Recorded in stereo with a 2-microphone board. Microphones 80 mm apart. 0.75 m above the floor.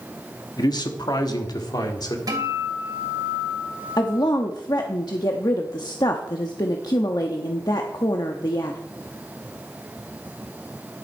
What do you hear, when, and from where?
0.6 s a man speaking: 55° left (ahead or behind), 1.3 m
2.3 s a guitar: 50° right (ahead or behind), 2.5 m
4.0 s a woman speaking: 55° left (ahead or behind), 0.9 m